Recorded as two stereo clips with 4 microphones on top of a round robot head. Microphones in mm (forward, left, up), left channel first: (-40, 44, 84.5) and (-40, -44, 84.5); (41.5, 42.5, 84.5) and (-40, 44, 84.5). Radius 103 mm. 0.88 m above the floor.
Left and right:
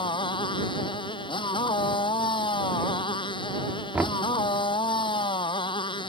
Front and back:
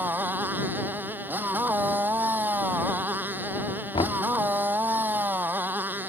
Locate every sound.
0.0 s a motorcycle: 115° left
3.9 s knocking: 15° right